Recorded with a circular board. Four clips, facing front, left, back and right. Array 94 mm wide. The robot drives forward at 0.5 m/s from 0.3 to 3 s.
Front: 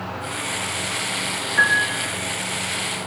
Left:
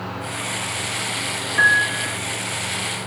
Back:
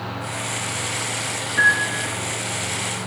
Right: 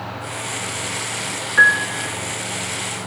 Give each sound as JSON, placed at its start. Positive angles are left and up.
{"t": 1.6, "sound": "a piano", "azimuth_deg": -95, "distance_m": 3.5}